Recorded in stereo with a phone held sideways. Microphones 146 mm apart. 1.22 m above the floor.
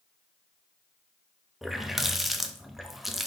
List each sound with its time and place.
1.6 s a running tap: centre (ahead or behind), 0.5 m